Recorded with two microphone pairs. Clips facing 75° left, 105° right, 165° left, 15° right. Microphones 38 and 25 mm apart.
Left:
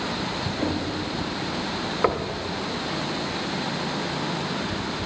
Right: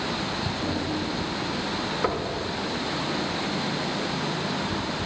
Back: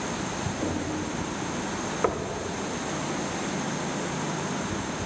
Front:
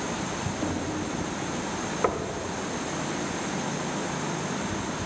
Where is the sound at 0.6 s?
100° left, 1.3 m.